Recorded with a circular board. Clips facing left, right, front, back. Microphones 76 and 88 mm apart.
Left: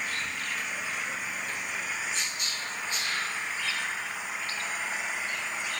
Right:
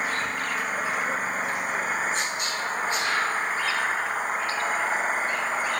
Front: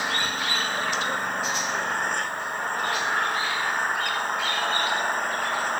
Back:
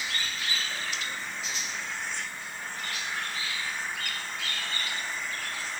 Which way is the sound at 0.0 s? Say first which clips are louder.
Right 7 dB, front 8 dB; 40° right.